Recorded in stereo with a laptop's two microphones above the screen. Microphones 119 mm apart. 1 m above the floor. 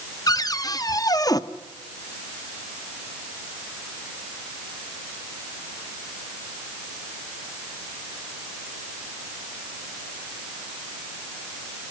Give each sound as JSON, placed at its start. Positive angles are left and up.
{"t": 0.3, "sound": "a cupboard door", "side_deg": 30, "distance_m": 0.7}